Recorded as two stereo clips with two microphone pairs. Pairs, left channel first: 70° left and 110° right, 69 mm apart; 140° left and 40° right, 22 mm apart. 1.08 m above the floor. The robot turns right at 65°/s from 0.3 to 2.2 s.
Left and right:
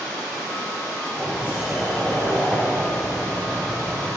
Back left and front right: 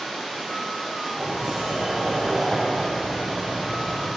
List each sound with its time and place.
1.2 s a sliding door: 65° right, 2.5 m; by 4.1 s straight ahead, 2.5 m